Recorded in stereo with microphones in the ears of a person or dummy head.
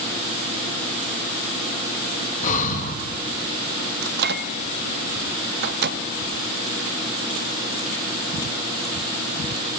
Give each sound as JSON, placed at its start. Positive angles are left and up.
{"t": 2.4, "sound": "breathing", "side_deg": 45, "distance_m": 2.0}
{"t": 4.0, "sound": "a microwave", "side_deg": -55, "distance_m": 0.8}